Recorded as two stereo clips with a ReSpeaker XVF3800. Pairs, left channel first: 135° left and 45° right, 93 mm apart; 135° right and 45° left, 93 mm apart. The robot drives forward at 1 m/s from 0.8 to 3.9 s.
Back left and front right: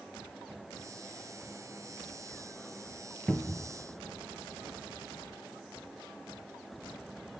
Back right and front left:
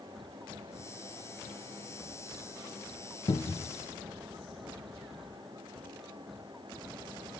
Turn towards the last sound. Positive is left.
turn(degrees=-160)